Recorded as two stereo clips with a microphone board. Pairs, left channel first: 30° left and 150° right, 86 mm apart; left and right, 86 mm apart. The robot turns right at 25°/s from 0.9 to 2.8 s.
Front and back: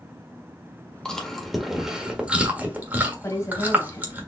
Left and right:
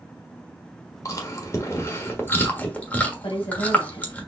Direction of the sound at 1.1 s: 110° left.